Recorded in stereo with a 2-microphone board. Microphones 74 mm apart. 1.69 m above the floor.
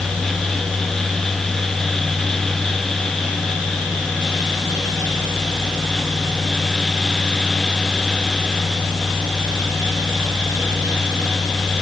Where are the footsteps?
I don't hear footsteps.